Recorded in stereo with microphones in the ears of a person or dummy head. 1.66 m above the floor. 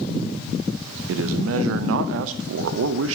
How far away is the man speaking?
About 0.5 m.